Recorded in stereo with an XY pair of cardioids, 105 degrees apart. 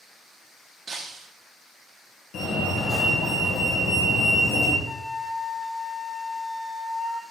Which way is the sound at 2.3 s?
65° left.